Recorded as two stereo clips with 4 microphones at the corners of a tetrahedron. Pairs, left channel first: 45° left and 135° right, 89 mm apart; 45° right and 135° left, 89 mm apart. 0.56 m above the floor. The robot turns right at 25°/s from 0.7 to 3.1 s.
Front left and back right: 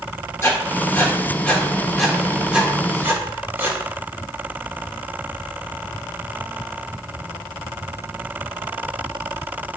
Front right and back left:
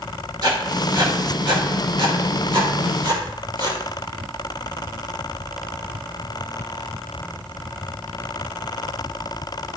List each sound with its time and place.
0.4 s writing: 100° left, 1.3 m; by 3.8 s 160° left, 1.3 m